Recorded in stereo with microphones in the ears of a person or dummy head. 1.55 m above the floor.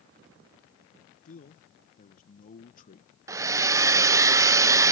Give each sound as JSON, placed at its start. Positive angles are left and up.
{"t": 1.2, "sound": "a man speaking", "side_deg": 40}
{"t": 3.3, "sound": "a hair dryer", "side_deg": -15}